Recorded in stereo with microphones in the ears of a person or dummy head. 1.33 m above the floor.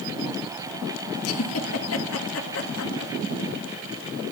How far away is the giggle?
About 1.9 m.